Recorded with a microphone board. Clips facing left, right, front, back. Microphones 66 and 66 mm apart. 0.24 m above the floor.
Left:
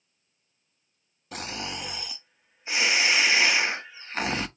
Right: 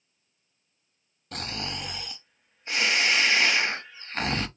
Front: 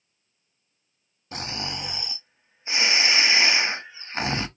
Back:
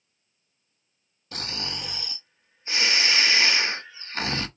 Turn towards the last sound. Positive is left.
turn(degrees=15)